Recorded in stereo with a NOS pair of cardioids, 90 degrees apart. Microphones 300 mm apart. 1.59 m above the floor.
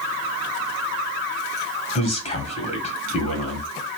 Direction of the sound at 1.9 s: 25° left.